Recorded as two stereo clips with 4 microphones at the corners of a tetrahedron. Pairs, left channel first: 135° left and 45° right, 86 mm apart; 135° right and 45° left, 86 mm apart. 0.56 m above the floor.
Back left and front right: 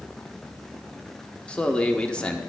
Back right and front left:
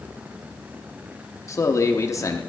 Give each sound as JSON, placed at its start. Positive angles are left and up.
{"t": 1.5, "sound": "a man speaking", "azimuth_deg": -155, "distance_m": 0.7}